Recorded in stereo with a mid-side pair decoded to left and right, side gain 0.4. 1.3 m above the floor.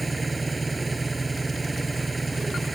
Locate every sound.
0.0 s an engine running: 25° right